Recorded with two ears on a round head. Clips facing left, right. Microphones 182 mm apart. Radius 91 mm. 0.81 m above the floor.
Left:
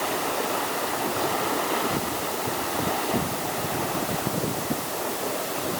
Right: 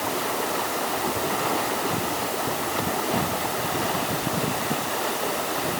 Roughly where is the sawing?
No sawing in this recording.